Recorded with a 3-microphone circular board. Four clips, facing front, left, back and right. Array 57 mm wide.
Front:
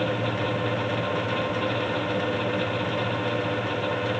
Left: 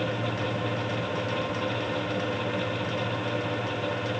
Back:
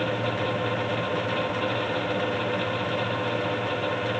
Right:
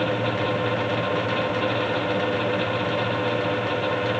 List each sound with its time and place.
Only background noise.